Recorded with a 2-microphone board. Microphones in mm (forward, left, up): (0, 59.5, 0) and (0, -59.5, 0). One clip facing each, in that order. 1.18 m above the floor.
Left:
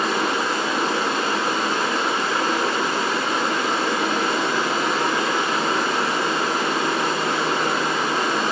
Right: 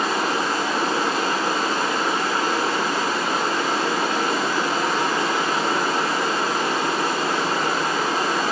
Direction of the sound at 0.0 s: 40° right (ahead or behind).